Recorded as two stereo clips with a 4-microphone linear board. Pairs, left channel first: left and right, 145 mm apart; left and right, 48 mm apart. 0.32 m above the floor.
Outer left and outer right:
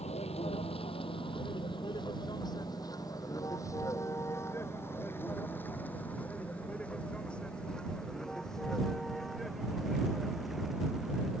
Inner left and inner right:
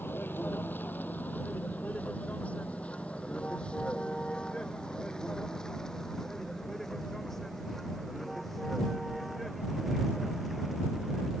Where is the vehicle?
45° left (ahead or behind); by 11.4 s centre (ahead or behind).